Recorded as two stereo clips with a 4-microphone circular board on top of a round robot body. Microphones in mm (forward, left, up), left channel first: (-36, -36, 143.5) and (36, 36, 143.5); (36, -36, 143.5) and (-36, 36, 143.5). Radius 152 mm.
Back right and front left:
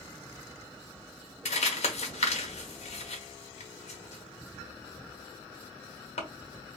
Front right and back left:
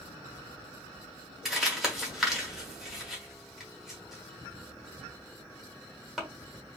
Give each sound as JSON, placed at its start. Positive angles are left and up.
{"t": 1.4, "sound": "crumpling", "azimuth_deg": -140, "distance_m": 1.3}